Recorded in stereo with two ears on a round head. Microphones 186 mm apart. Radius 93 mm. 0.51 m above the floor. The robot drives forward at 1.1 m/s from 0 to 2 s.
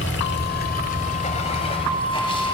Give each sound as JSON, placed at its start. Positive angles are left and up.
{"t": 0.0, "sound": "running water", "side_deg": 65, "distance_m": 1.5}